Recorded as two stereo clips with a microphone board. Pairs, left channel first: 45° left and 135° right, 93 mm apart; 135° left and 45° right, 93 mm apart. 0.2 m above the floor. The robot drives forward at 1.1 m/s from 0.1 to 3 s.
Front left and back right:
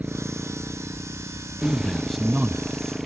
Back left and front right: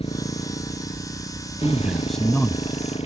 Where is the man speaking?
5° left; by 3.0 s straight behind.